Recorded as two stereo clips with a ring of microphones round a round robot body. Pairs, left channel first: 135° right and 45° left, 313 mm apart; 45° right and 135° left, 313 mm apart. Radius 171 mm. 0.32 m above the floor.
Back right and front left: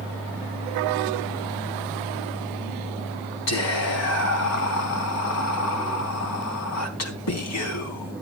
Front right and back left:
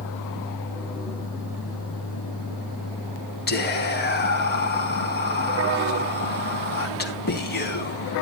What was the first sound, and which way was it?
Whispering, 100° right.